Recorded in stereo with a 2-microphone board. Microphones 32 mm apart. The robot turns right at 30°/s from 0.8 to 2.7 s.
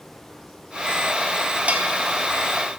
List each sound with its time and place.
1.7 s a bell: 55° right (ahead or behind), 1.2 m